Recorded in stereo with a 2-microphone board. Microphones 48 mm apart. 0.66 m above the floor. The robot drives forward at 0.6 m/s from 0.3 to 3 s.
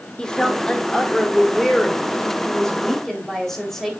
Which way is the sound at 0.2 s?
15° left (ahead or behind).